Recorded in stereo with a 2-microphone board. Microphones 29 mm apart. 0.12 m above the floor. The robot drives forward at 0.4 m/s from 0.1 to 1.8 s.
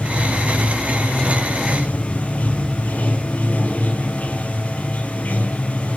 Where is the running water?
60° left (ahead or behind), 1.6 m; by 6.0 s 65° left (ahead or behind), 1.5 m.